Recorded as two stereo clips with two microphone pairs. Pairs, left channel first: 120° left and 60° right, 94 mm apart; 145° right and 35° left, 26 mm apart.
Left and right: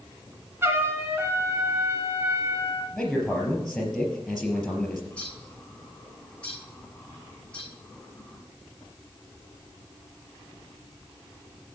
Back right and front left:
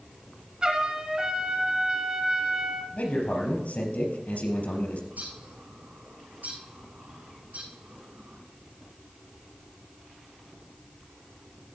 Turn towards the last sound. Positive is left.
turn(degrees=40)